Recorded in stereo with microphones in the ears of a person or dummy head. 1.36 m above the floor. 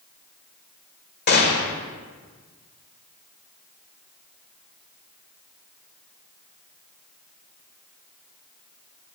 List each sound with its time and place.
1.3 s a gunshot: 55° left (ahead or behind), 1.4 m